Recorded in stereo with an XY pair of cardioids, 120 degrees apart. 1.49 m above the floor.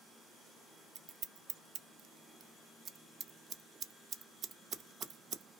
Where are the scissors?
55° right, 0.5 m.